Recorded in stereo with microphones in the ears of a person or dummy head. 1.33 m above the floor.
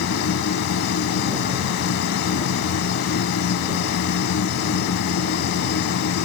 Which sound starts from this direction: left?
A machine running, at 0.0 s.